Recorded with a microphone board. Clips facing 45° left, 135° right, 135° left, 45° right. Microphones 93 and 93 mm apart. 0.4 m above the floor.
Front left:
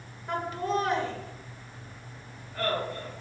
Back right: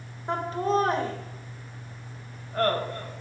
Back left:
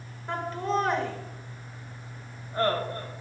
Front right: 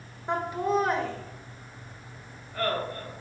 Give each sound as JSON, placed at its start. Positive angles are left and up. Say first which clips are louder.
{"t": 0.3, "sound": "laughter", "louder": "back right 4 dB, front right 2 dB", "azimuth_deg": -100, "distance_m": 1.5}